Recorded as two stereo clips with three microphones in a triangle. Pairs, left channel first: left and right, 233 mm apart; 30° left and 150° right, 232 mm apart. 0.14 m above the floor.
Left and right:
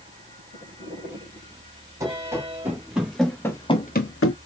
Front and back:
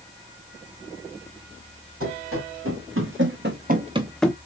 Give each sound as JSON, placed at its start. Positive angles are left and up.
{"t": 2.0, "sound": "running footsteps", "azimuth_deg": -165, "distance_m": 3.5}